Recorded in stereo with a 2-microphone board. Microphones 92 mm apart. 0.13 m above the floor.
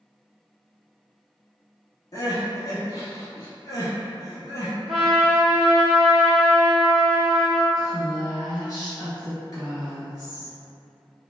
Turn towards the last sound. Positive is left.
turn(degrees=45)  # may be behind; listen again after turning